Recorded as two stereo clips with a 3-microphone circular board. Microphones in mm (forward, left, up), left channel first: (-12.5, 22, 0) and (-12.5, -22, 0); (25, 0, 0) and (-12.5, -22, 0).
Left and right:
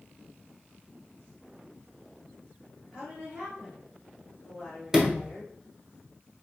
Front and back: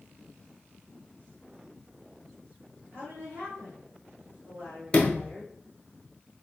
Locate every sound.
2.9 s a woman speaking: 135° right, 2 m; by 5.6 s 175° left, 3.5 m
4.9 s a sliding door: 20° right, 0.9 m